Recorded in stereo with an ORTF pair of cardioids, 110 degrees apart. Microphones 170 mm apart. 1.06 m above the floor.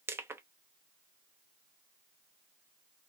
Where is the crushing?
15° right, 0.6 m.